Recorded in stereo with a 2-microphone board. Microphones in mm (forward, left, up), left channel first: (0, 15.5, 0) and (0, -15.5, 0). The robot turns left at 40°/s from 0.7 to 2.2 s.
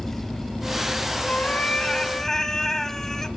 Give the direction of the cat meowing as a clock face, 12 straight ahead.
10 o'clock.